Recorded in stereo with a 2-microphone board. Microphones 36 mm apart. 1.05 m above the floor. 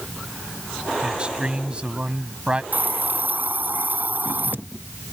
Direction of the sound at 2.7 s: 65° right (ahead or behind).